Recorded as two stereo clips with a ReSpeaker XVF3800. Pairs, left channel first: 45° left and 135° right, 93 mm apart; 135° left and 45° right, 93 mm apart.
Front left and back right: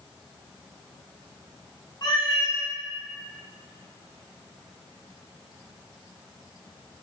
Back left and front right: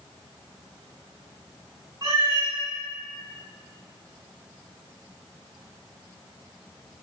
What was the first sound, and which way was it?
A cat meowing, 5° left.